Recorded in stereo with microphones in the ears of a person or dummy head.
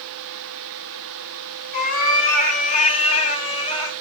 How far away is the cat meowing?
About 3.5 m.